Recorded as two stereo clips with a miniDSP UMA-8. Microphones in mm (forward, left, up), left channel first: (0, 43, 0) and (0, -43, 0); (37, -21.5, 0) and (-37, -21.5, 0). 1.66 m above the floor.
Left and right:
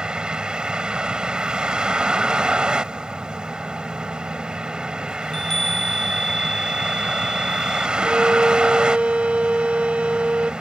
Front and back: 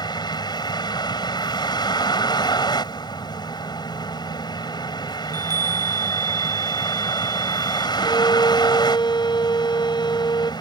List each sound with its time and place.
0.0 s a vehicle: 10° right
5.2 s a chime: 175° left
8.0 s a violin: 15° right